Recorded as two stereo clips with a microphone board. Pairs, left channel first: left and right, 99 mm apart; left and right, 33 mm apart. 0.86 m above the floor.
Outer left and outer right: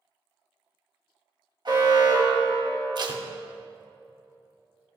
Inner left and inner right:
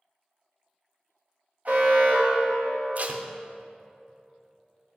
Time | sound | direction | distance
1.6 | an alarm | 50° right (ahead or behind) | 1.8 m
3.0 | tape being pulled | 50° right (ahead or behind) | 0.6 m